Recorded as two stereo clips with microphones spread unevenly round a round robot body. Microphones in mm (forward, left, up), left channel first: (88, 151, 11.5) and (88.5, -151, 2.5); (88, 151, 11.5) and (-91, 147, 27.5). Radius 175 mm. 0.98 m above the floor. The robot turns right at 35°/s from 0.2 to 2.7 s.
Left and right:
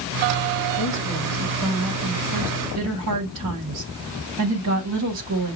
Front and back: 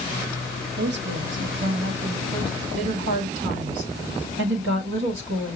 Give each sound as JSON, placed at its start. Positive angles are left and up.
{"t": 0.8, "sound": "a woman speaking", "azimuth_deg": 150, "distance_m": 1.2}